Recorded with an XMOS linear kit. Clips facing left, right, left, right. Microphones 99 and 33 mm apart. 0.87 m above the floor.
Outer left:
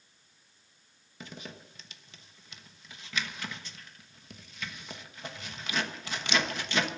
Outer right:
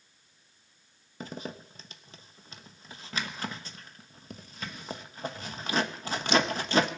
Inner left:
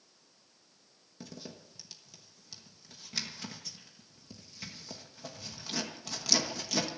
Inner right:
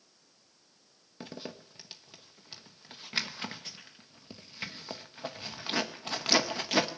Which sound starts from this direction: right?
A zipper, at 1.2 s.